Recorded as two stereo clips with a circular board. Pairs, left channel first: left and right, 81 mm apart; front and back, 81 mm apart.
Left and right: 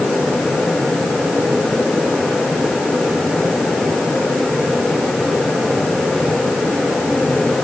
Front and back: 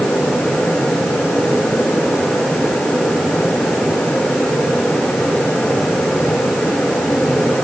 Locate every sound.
Only background noise.